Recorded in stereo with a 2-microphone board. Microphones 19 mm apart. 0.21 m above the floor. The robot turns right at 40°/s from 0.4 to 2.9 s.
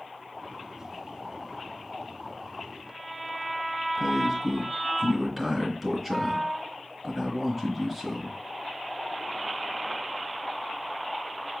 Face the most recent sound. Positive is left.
turn(degrees=0)  # may be behind; listen again after turning